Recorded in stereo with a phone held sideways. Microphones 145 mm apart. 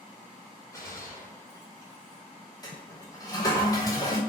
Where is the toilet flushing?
25° left (ahead or behind), 2.5 m.